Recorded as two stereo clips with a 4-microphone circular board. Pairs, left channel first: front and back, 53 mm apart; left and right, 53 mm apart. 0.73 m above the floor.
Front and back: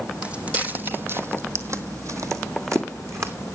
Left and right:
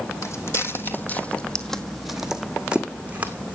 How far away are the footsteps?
About 1.6 m.